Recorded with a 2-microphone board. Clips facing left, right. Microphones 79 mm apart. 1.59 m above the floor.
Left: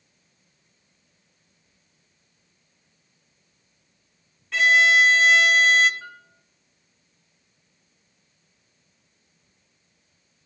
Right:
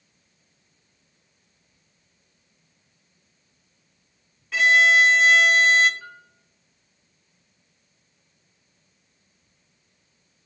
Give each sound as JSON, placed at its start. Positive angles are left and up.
{"t": 4.5, "sound": "a violin", "side_deg": 0, "distance_m": 0.6}
{"t": 6.0, "sound": "a piano", "side_deg": 15, "distance_m": 3.0}